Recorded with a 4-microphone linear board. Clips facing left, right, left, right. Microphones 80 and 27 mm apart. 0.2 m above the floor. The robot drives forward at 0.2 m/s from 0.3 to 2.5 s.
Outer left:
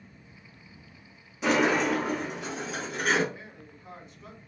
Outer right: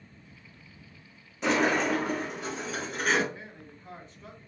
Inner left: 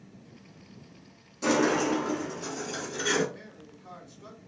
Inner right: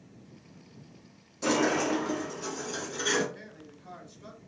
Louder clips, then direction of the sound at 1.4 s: Outer left 1 dB, inner left 2 dB; centre (ahead or behind).